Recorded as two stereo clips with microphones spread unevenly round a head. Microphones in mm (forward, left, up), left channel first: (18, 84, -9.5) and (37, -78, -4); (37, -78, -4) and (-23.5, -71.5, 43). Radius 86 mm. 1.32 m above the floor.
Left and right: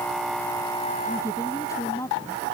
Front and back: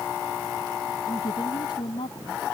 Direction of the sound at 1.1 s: 25° left.